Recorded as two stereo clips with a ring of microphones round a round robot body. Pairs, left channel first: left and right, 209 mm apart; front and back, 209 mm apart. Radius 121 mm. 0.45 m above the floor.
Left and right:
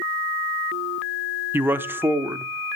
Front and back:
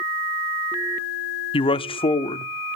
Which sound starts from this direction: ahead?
A man speaking, at 1.5 s.